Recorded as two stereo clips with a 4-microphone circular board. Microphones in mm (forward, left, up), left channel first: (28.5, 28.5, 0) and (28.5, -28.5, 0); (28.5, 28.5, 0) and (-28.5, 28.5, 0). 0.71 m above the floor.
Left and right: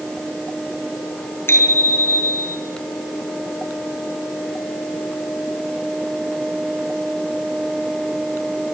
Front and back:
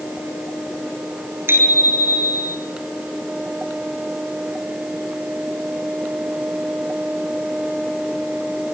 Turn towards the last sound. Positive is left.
turn(degrees=130)